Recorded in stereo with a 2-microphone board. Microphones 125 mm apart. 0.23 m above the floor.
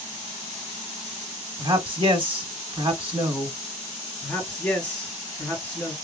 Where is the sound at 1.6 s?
40° right (ahead or behind), 1.5 m.